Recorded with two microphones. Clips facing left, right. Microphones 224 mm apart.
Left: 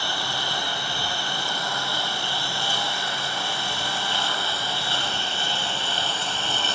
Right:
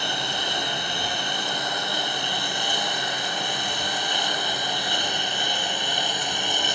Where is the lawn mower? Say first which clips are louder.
Right 1 dB; 20° right (ahead or behind); by 6.8 s 15° right (ahead or behind).